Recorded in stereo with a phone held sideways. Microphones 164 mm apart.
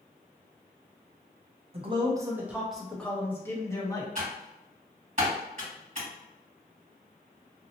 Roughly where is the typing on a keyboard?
Right.